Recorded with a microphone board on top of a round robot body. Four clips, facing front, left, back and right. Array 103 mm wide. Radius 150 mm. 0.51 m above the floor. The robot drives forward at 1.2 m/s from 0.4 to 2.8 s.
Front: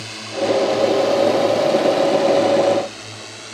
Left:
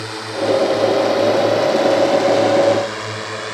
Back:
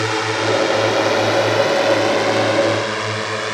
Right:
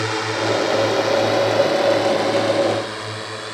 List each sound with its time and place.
0.0 s a drone: 160° right; by 3.5 s 160° left